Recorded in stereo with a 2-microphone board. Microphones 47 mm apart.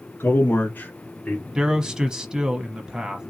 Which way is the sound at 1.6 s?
15° right (ahead or behind).